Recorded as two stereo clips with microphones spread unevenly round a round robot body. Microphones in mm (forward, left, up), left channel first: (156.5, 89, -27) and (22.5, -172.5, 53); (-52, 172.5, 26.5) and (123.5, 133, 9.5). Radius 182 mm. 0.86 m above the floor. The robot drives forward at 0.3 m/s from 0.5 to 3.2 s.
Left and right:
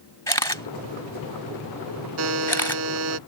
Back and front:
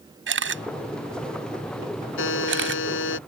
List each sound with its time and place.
0.3 s a camera shutter: 15° right; by 2.8 s 20° right
2.2 s a buzzer: 170° right